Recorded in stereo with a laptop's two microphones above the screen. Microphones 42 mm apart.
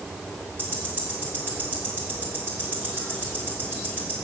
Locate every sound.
0.6 s ticking: 45° right (ahead or behind), 3 m